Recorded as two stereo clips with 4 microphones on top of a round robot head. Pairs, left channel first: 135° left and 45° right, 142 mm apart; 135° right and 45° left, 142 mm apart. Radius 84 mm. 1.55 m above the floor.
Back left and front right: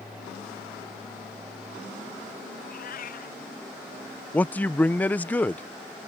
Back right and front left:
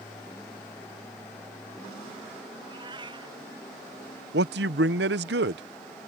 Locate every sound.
2.6 s a cat meowing: 105° left
4.3 s a man speaking: 55° left